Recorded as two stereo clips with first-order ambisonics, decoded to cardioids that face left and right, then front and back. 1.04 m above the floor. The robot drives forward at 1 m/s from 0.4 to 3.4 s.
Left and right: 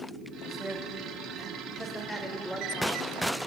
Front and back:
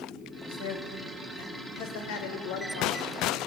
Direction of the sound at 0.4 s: 5° left.